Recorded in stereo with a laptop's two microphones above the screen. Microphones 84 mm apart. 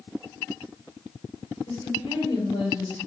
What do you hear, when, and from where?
1.7 s a woman speaking: 85° left, 3.5 m